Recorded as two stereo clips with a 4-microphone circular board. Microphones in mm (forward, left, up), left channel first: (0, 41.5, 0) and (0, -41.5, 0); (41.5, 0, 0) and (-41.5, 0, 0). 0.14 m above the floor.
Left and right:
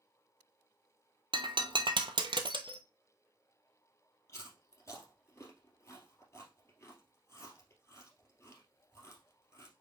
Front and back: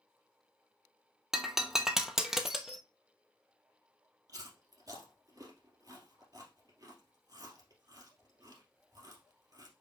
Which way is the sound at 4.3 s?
145° left.